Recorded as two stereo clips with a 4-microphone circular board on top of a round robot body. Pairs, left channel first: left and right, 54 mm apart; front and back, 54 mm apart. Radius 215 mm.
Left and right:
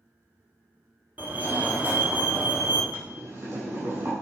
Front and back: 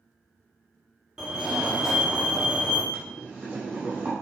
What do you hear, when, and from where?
1.2 s a fire alarm: 115° right, 2.5 m
2.9 s boiling: 120° right, 6 m